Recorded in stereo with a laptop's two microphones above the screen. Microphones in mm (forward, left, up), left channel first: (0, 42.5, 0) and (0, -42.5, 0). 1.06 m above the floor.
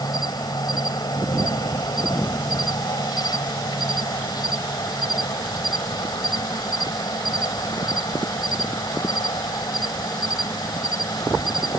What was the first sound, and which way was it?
An insect, 55° left (ahead or behind).